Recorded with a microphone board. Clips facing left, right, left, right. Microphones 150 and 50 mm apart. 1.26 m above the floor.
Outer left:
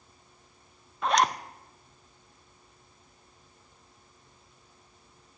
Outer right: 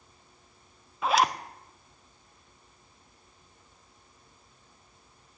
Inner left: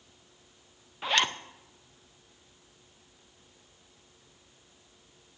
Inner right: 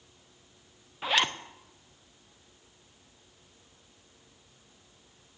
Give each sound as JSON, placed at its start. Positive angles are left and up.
{"t": 1.0, "sound": "a zipper", "side_deg": -5, "distance_m": 0.5}